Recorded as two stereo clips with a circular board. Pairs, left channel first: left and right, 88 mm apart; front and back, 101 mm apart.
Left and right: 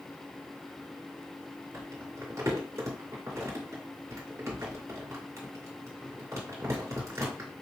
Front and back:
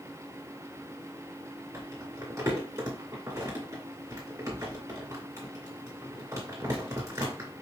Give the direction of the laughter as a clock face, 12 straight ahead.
No laughter in this recording.